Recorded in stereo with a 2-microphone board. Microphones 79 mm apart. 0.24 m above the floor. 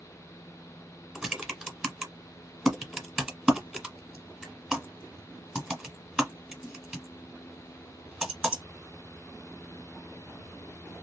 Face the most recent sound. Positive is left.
turn(degrees=-10)  # may be behind; listen again after turning